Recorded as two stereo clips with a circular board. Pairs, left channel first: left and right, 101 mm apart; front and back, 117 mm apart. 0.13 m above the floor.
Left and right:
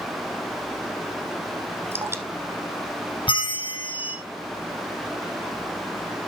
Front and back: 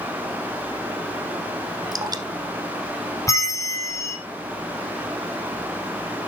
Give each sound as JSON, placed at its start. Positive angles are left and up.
{"t": 1.9, "sound": "dripping", "azimuth_deg": -145, "distance_m": 1.1}
{"t": 3.3, "sound": "a bell", "azimuth_deg": 60, "distance_m": 1.7}